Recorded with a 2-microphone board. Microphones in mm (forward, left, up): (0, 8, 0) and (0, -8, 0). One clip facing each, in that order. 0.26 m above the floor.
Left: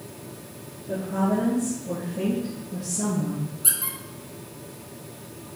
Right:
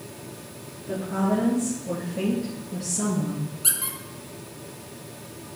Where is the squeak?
35° right (ahead or behind), 1.1 m.